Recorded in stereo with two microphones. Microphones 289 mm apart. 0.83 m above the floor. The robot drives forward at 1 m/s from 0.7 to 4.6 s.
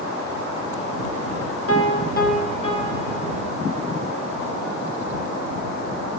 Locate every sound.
1.7 s a piano: 55° left (ahead or behind), 0.5 m; by 3.4 s 10° left (ahead or behind), 2.0 m